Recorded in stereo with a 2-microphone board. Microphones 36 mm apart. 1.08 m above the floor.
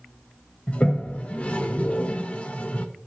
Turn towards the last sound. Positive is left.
turn(degrees=40)  # may be behind; listen again after turning